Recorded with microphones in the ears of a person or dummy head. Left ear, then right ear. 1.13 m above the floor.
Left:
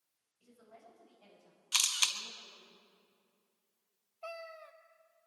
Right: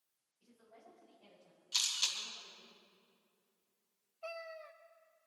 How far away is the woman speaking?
About 5.5 m.